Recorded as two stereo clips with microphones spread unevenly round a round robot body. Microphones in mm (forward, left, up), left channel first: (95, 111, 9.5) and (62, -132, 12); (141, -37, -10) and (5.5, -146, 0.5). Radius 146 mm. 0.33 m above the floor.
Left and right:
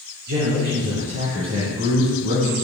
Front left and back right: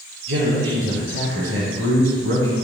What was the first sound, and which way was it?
A man speaking, 150° right.